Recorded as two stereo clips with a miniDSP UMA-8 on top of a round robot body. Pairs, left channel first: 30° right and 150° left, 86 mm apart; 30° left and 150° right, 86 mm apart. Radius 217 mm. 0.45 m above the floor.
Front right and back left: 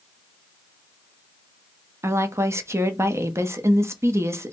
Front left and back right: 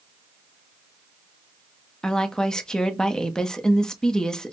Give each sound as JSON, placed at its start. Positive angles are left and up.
{"t": 2.0, "sound": "a woman speaking", "azimuth_deg": 110, "distance_m": 1.1}